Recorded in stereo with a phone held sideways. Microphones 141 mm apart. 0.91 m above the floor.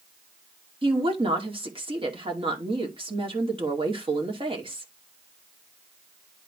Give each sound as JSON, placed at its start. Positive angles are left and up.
{"t": 0.8, "sound": "a woman speaking", "side_deg": -40, "distance_m": 2.0}